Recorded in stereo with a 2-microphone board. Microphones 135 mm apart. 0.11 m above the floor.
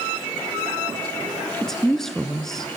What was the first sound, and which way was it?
A woman speaking, 5° left (ahead or behind).